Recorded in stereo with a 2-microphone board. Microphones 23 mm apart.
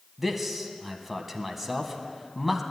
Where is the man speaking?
5° right (ahead or behind), 1.1 m.